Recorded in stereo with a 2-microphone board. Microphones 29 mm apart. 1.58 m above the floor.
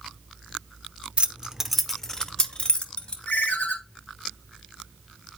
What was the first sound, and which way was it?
Keys jangling, 40° right (ahead or behind).